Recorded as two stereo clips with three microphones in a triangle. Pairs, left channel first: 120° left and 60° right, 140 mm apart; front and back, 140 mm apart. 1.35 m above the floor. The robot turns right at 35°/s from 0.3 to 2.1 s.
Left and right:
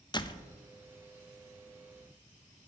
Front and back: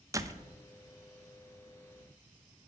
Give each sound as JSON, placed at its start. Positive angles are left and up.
{"t": 0.1, "sound": "a door slam", "azimuth_deg": 135, "distance_m": 0.6}